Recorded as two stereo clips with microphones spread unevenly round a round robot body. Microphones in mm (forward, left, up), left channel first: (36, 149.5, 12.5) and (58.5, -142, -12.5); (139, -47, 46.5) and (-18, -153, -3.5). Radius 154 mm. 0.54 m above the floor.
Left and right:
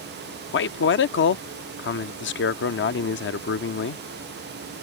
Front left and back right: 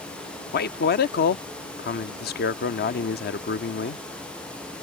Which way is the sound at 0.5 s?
60° left.